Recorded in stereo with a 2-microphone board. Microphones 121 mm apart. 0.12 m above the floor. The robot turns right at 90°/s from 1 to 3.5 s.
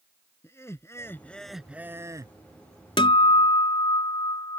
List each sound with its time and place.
0.4 s laughter: 135° left; by 2.3 s 105° right
3.0 s a guitar: 80° left; by 4.6 s 125° left